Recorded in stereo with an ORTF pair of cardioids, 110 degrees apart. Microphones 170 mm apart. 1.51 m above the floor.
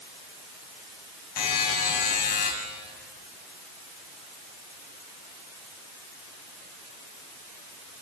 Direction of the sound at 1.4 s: 65° left.